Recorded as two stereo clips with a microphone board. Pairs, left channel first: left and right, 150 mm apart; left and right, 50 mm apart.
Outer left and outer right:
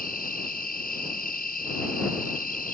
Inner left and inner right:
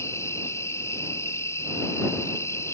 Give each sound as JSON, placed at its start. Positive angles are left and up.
{"t": 0.0, "sound": "an insect", "side_deg": 80}